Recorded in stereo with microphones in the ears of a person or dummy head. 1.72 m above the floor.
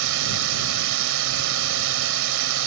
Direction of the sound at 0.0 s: 70° right (ahead or behind).